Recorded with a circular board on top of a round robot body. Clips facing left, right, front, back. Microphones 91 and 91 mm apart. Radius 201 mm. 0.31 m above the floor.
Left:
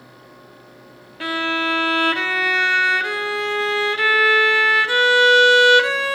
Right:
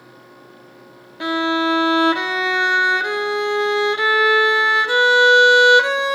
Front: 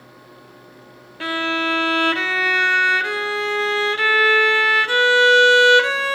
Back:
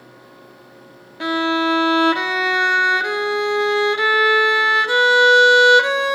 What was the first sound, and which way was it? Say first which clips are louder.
A violin: right 4 dB, back 4 dB; 130° right.